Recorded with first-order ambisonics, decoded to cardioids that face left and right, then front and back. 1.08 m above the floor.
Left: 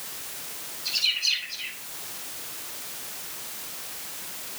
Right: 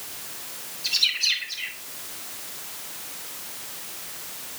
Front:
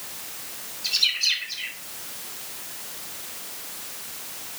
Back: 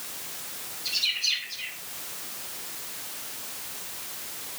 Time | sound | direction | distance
0.8 | a bird | 45° right | 6.5 m